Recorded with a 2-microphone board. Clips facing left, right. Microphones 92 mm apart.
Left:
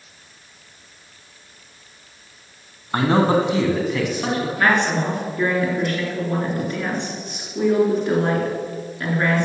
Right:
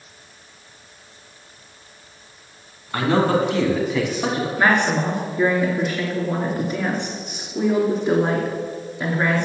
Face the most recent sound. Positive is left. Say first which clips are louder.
# right 1 dB
turn(degrees=-15)  # may be behind; listen again after turning